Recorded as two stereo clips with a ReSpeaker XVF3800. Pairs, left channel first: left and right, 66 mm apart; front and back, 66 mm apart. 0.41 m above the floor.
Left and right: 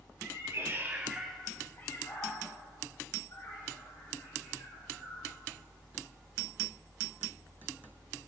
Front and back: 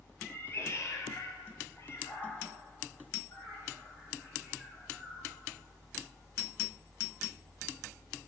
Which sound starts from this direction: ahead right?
A cat meowing, at 0.2 s.